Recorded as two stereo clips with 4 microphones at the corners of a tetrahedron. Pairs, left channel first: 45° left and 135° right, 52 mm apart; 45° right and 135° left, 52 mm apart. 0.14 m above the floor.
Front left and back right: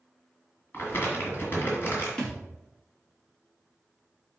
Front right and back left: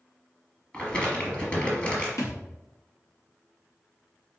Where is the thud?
30° right, 2 m.